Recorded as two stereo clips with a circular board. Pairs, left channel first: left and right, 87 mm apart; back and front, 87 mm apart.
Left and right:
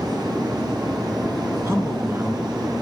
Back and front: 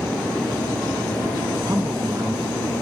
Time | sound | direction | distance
1.7 | a man speaking | 35° right | 2.5 m